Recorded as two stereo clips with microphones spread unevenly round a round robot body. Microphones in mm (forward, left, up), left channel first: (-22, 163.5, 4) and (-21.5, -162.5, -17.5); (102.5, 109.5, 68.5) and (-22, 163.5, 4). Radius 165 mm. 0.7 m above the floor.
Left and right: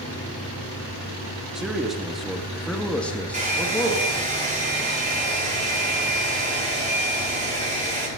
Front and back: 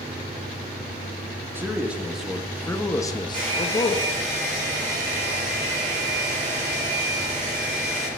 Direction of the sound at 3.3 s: 160° right.